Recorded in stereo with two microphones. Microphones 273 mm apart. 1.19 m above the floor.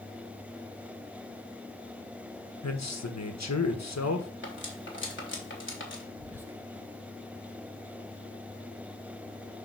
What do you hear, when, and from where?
2.6 s a man speaking: 75° left (ahead or behind), 1.3 m
4.4 s cutlery clinking: 45° left (ahead or behind), 2 m
6.2 s whispering: 10° right (ahead or behind), 1.2 m